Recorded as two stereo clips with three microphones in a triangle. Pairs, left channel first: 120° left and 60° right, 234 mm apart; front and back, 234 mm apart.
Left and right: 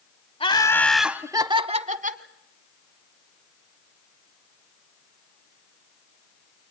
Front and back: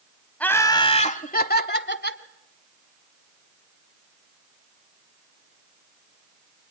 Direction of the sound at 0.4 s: 80° left.